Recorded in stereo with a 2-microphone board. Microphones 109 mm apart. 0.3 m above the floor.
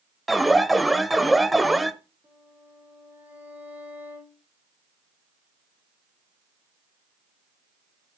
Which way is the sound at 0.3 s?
Centre (ahead or behind).